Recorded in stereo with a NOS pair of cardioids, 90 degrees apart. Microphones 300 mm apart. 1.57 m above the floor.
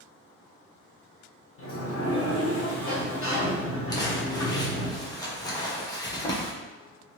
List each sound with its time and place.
1.6 s a sliding door: 45° left, 1.3 m
3.9 s crumpling: 15° left, 1.1 m